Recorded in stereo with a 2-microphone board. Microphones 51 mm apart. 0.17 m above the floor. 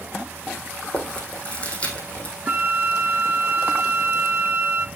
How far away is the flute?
About 0.6 m.